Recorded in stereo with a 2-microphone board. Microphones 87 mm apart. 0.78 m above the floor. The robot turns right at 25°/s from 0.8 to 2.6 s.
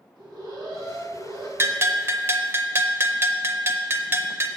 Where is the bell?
30° right (ahead or behind), 0.5 m.